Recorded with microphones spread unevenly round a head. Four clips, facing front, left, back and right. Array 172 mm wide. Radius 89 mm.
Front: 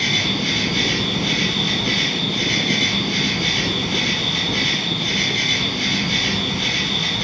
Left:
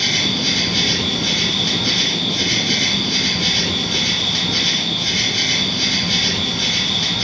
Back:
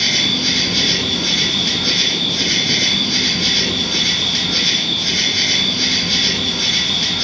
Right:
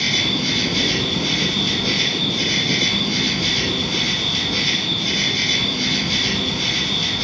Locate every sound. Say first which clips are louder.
0.0 s an insect: even, back 1 dB; 120° left, 0.8 m